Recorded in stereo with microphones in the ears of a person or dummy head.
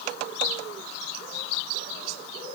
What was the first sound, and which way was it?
Only background noise.